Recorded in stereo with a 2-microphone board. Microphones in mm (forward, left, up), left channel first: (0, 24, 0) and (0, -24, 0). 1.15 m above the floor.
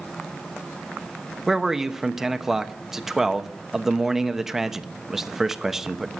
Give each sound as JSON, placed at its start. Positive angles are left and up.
{"t": 1.5, "sound": "a man speaking", "side_deg": -10, "distance_m": 0.9}